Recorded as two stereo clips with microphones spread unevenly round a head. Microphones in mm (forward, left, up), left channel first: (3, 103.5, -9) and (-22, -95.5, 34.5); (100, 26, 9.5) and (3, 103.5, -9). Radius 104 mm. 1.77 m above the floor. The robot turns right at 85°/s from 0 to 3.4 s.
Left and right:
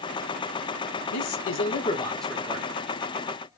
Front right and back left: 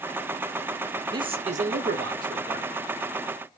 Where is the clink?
No clink in this recording.